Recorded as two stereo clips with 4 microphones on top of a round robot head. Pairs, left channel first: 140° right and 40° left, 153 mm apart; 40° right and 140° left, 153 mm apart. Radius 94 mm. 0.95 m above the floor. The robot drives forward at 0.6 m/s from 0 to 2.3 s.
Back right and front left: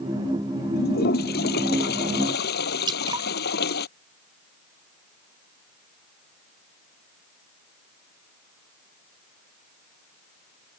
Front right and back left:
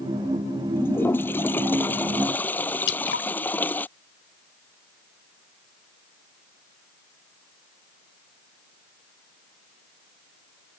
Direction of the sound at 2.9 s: 25° right.